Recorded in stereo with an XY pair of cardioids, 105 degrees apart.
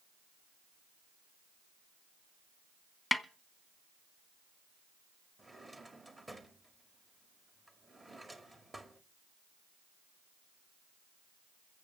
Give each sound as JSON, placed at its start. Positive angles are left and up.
{"t": 3.1, "sound": "a snare drum", "azimuth_deg": 10, "distance_m": 1.1}
{"t": 5.4, "sound": "a drawer", "azimuth_deg": -15, "distance_m": 1.9}